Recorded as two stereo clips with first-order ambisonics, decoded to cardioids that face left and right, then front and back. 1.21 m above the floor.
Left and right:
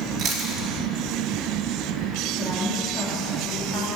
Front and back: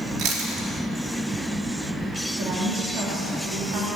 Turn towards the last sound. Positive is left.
turn(degrees=155)